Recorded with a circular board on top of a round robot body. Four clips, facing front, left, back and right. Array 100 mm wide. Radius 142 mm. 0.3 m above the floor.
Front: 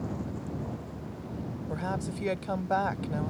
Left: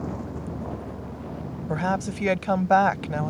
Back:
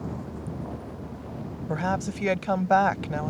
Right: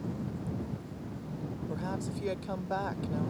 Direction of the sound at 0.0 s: 95° left.